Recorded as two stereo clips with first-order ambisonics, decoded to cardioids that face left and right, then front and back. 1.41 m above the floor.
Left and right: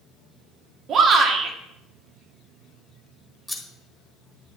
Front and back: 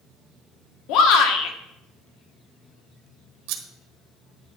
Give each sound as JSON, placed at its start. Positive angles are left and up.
{"t": 0.9, "sound": "a shout", "azimuth_deg": -30, "distance_m": 1.5}
{"t": 3.5, "sound": "scissors", "azimuth_deg": 175, "distance_m": 1.3}